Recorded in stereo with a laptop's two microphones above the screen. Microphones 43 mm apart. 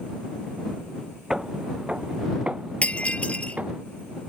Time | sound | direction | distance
1.3 | footsteps | 15° right (ahead or behind) | ?
2.8 | breaking glass | 30° left (ahead or behind) | ?